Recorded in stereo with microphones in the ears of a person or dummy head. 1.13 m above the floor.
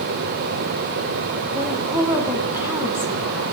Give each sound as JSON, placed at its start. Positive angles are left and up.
{"t": 1.5, "sound": "a woman speaking", "side_deg": -20, "distance_m": 2.0}